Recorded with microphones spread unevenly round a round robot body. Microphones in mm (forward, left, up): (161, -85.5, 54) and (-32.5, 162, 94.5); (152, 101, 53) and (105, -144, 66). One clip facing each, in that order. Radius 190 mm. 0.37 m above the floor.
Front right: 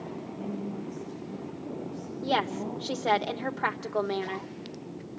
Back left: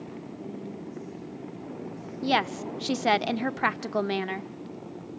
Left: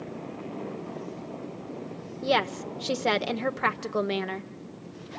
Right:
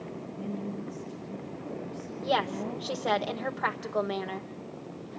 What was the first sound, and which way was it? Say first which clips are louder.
A woman speaking: front right 4 dB, right 4 dB; 110° right.